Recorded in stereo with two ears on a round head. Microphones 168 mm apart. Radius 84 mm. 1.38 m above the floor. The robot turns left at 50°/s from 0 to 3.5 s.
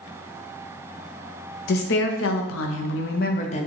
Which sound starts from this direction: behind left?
A woman speaking, at 1.7 s.